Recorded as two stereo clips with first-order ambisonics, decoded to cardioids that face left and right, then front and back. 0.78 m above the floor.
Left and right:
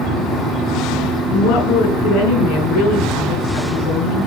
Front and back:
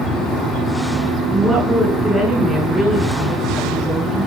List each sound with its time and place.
1.3 s a woman speaking: 105° left, 9.5 m